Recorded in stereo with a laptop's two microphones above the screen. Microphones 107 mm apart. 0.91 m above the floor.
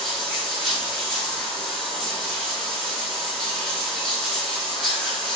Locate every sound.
0.0 s running water: centre (ahead or behind), 1.3 m